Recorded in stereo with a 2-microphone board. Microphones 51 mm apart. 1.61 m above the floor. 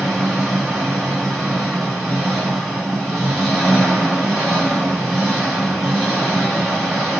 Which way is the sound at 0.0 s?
5° right (ahead or behind).